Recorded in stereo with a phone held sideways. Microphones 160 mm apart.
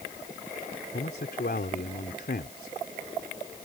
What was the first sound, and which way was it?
A man speaking, 70° left (ahead or behind).